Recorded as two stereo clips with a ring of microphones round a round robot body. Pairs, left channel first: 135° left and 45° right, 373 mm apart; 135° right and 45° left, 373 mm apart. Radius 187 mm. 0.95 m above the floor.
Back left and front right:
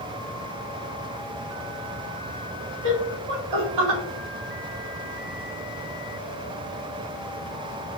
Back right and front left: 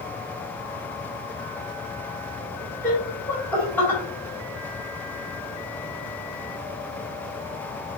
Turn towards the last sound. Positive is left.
turn(degrees=-50)